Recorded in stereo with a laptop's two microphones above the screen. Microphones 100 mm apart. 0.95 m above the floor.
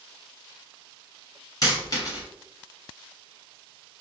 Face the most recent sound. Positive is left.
turn(degrees=40)  # may be behind; listen again after turning